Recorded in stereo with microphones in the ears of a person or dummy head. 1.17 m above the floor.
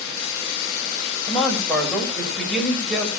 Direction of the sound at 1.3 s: 10° left (ahead or behind).